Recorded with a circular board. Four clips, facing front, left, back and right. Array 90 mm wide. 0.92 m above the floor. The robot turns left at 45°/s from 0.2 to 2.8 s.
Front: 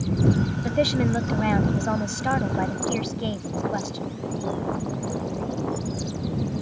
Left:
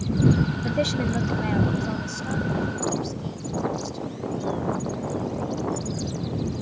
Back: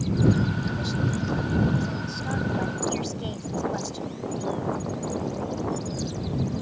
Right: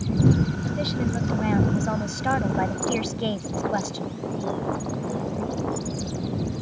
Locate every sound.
0.6 s a woman speaking: 30° left; by 4.0 s 70° right